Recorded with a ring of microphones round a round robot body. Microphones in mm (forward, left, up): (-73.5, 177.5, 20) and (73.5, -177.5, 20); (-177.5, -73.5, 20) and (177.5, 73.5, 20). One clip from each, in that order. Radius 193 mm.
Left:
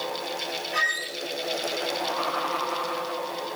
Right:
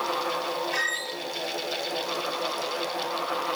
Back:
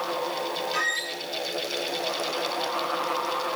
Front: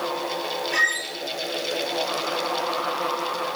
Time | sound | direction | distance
0.7 | a squeak | 10° left | 7 m